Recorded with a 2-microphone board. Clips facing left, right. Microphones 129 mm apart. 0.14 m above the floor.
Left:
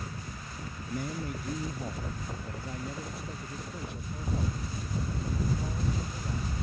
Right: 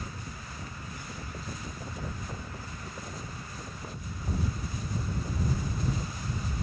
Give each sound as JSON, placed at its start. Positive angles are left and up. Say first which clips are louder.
{"t": 0.9, "sound": "a man speaking", "louder": "left 7 dB", "side_deg": 50}